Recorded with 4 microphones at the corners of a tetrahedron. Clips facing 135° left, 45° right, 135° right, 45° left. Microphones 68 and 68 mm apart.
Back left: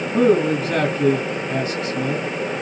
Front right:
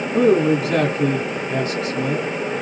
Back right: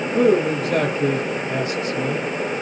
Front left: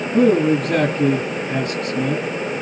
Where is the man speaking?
50° left, 1.9 m.